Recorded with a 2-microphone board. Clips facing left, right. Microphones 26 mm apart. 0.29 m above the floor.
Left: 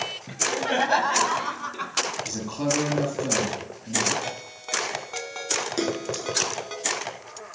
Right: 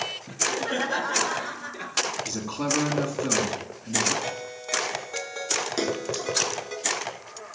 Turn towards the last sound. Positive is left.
turn(degrees=-5)  # may be behind; listen again after turning